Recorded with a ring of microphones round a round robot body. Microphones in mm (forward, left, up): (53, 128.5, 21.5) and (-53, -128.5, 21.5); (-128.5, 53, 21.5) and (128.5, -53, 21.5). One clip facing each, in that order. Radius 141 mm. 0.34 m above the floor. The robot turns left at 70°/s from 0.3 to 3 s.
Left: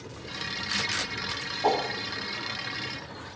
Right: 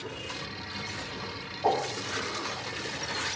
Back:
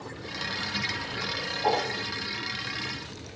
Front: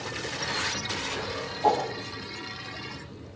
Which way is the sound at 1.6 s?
20° left.